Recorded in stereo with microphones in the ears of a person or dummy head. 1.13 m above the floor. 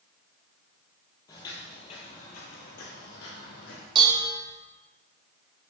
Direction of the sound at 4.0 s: 30° right (ahead or behind).